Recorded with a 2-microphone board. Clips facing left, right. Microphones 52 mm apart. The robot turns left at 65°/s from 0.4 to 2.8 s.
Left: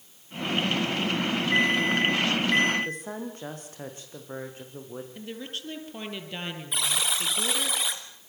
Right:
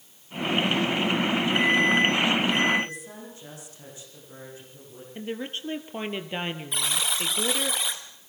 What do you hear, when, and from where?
1.5 s an alarm: 105° left, 7.5 m; by 2.8 s 25° left, 7.5 m
2.9 s a woman speaking: 50° left (ahead or behind), 7.5 m
5.2 s a woman speaking: 25° right (ahead or behind), 3 m
6.7 s a buzzer: 5° left (ahead or behind), 3 m